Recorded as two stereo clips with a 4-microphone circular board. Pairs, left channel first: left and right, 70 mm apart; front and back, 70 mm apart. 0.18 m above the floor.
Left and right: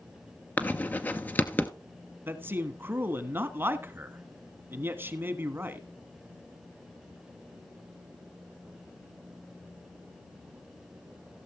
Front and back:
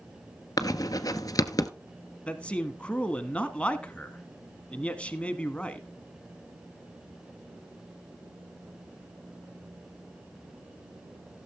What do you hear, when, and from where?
0.6 s writing: 25° left, 0.9 m
2.3 s a man speaking: 60° right, 1.3 m